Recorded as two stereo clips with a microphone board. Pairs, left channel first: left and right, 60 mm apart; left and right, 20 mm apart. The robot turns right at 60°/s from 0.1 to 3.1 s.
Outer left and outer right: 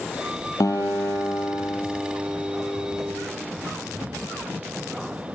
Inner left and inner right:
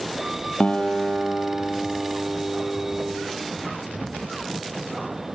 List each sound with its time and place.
0.6 s a guitar: 100° left, 3 m; by 3.1 s 110° right, 3 m